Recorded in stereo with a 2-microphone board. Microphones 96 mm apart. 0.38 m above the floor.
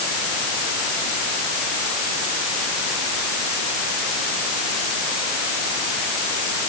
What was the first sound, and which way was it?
Only background noise.